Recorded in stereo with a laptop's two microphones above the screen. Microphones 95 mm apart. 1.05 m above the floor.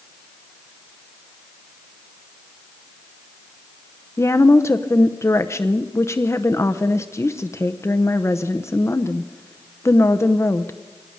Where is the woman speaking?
30° left (ahead or behind), 0.8 m.